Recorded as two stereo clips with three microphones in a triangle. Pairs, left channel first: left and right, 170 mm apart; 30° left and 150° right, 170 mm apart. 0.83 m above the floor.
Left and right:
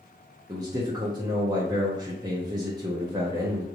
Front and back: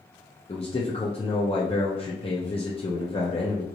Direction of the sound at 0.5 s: 25° right.